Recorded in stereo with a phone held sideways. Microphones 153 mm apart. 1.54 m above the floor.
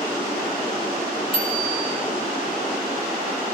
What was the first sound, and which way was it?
A bicycle bell, 35° left (ahead or behind).